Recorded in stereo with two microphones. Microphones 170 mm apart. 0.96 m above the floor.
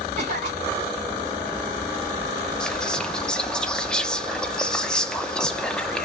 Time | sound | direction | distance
0.2 | a cough | 45° right (ahead or behind) | 2 m
2.6 | whispering | 5° left (ahead or behind) | 0.5 m